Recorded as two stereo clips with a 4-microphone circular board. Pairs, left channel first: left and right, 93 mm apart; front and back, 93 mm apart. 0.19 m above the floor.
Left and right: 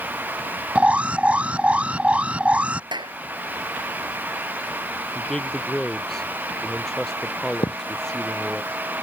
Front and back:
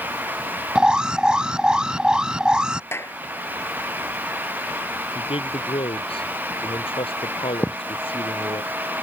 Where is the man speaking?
5° left.